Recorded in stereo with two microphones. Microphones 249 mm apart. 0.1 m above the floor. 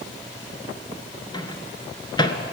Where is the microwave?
20° left (ahead or behind), 0.9 m.